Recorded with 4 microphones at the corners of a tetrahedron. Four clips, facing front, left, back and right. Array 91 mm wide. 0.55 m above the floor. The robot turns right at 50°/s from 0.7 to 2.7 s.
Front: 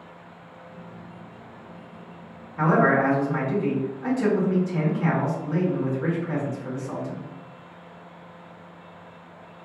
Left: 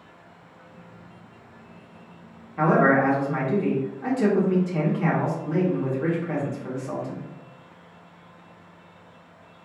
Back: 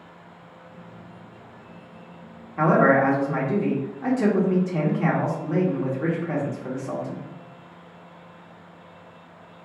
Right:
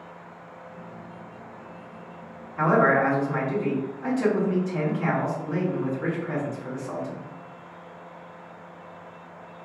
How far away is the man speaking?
About 1.1 m.